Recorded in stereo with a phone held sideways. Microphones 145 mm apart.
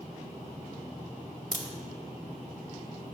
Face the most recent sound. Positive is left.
turn(degrees=65)  # may be behind; listen again after turning